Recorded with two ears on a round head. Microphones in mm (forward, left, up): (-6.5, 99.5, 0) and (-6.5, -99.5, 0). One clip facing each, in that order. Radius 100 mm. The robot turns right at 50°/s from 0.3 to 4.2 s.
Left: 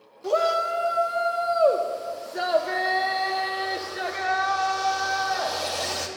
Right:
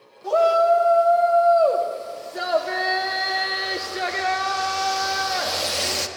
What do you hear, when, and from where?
0.2 s a shout: 65° left, 0.9 m; by 6.1 s 100° right, 0.9 m